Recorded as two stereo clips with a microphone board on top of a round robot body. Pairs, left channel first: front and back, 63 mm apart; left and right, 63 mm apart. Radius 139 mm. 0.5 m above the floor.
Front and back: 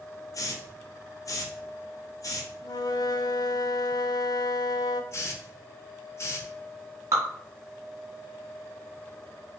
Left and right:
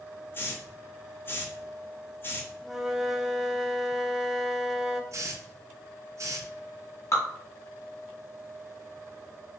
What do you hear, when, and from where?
0.3 s a hiss: 35° left, 1.0 m
2.6 s a flute: 5° right, 0.5 m
5.1 s a hiss: 50° right, 0.7 m
7.1 s dripping: 130° left, 1.4 m